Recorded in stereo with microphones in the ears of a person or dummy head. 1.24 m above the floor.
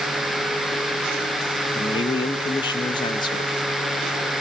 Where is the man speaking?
20° left (ahead or behind), 1.6 m.